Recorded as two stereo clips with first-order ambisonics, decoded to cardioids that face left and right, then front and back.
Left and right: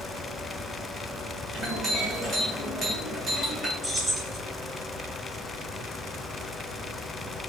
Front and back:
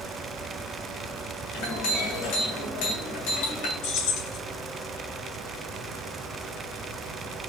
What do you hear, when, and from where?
1.5 s a clink: straight ahead, 2.5 m
3.8 s keys jangling: 5° right, 2.5 m